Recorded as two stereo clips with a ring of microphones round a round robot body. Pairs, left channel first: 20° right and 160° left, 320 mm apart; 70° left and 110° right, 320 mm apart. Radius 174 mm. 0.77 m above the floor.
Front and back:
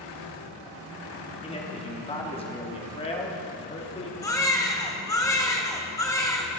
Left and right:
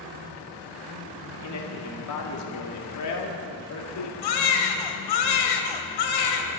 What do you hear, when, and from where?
1.4 s a man speaking: 50° left, 2.5 m
4.2 s a baby crying: 60° left, 1.5 m